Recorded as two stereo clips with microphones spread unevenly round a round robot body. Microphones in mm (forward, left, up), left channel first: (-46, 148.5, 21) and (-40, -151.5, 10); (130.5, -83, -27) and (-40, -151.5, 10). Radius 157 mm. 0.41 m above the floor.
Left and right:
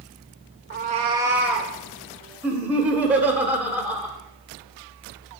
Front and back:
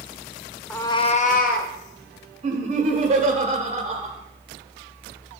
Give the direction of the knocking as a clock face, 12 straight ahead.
I don't hear knocking.